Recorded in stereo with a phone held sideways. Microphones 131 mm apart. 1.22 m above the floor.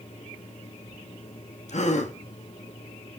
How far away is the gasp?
About 2.0 m.